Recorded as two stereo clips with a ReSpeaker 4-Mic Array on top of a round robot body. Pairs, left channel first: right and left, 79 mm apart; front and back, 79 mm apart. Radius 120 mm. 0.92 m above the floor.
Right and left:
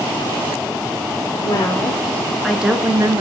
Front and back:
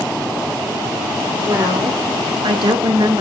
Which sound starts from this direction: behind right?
A woman speaking, at 1.4 s.